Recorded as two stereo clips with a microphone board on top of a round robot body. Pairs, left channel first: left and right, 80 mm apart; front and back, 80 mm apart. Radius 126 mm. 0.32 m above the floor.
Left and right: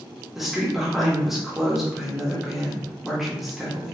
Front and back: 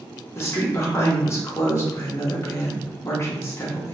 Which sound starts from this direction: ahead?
A woman speaking, at 0.3 s.